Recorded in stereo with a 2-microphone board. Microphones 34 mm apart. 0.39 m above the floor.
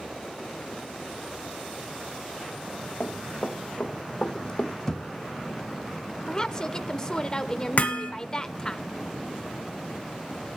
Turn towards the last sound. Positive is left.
turn(degrees=55)  # may be behind; listen again after turning